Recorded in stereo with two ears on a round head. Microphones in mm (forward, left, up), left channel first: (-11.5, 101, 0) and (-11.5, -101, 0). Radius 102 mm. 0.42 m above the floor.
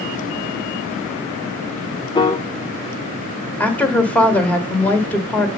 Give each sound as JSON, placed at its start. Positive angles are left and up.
{"t": 2.1, "sound": "a piano", "side_deg": 20, "distance_m": 0.8}
{"t": 3.6, "sound": "a woman speaking", "side_deg": 5, "distance_m": 1.5}